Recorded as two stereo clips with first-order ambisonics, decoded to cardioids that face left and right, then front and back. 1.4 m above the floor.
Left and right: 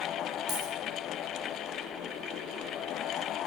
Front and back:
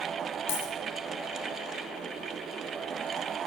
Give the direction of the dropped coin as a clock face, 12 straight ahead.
12 o'clock.